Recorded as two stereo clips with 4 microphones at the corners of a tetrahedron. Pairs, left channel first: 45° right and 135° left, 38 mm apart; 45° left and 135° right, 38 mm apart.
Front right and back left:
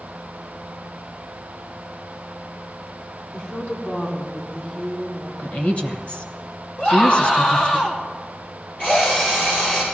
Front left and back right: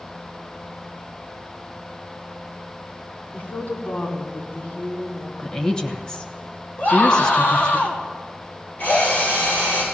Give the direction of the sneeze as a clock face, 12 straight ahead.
I don't hear a sneeze.